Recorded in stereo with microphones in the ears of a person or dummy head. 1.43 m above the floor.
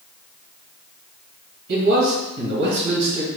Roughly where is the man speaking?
Right.